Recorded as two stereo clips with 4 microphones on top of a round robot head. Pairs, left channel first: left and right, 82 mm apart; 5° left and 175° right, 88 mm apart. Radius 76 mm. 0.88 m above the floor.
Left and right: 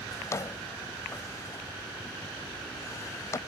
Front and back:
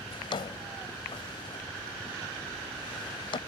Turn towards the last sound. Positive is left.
turn(degrees=35)